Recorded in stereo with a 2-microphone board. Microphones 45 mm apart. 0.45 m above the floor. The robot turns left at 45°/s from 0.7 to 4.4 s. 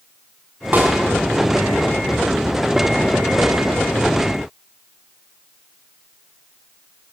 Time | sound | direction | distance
0.7 | a snare drum | 40° right (ahead or behind) | 4.5 m